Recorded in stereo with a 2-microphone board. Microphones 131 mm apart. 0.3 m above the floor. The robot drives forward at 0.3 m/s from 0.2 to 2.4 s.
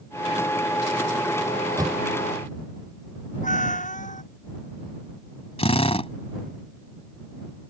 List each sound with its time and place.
1.5 s a microwave: 25° right (ahead or behind); by 2.0 s 30° right (ahead or behind)
3.4 s a cat meowing: 75° left (ahead or behind)
5.6 s a drill: 50° left (ahead or behind)